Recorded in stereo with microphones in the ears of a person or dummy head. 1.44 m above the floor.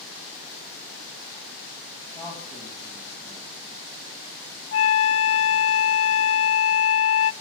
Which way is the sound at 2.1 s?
15° left (ahead or behind).